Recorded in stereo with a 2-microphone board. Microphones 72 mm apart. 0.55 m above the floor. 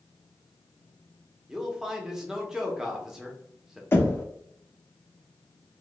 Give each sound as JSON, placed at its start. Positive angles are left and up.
{"t": 1.5, "sound": "a man speaking", "side_deg": -5, "distance_m": 0.6}
{"t": 3.9, "sound": "knocking", "side_deg": 30, "distance_m": 0.7}